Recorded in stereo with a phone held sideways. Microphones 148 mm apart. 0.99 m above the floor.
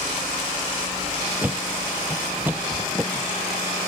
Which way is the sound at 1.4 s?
10° right (ahead or behind).